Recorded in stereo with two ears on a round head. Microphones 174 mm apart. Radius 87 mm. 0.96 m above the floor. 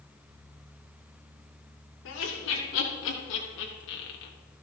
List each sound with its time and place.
2.0 s laughter: 75° left (ahead or behind), 3.5 m; by 4.3 s 60° left (ahead or behind), 1.5 m